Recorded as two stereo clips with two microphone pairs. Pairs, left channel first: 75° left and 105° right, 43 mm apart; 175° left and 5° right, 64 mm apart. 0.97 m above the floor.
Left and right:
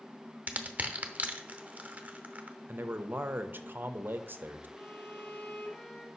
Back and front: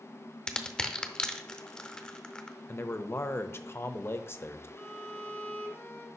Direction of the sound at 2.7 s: 140° right.